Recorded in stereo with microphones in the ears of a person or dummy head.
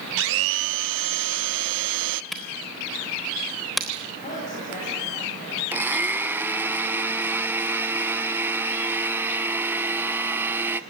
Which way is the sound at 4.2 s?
45° left (ahead or behind).